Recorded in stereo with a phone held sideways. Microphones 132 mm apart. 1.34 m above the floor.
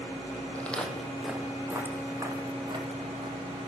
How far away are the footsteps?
About 1.9 m.